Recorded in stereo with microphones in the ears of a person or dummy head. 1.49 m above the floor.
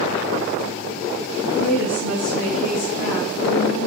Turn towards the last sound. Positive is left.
turn(degrees=70)  # may be behind; listen again after turning